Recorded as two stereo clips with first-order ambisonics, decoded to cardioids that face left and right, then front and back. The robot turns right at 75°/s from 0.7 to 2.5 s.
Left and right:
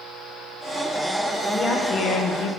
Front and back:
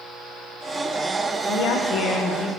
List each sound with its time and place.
1.5 s a woman speaking: 5° left, 0.7 m; by 2.5 s 80° left, 0.7 m